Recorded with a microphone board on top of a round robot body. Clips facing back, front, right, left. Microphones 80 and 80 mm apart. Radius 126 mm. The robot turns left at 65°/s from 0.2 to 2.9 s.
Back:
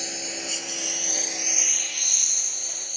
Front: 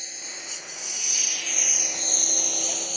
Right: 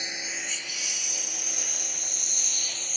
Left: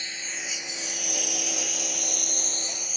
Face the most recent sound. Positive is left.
turn(degrees=5)